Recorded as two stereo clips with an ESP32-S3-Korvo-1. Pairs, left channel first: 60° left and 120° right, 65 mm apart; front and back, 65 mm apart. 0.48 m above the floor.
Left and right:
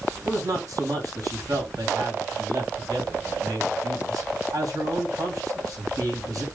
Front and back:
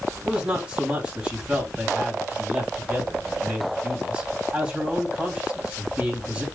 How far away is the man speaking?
About 2.5 m.